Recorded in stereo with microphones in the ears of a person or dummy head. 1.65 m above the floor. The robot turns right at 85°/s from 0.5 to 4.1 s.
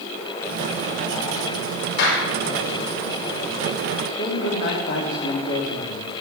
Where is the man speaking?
50° left (ahead or behind), 3.5 m.